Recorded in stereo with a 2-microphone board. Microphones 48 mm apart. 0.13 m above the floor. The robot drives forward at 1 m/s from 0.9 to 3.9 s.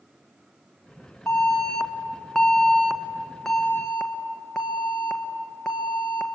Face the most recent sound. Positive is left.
turn(degrees=10)  # may be behind; listen again after turning